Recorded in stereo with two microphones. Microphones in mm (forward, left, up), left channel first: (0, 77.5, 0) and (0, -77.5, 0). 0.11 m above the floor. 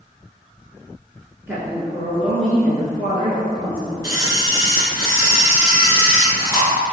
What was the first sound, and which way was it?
A woman speaking, 15° right (ahead or behind).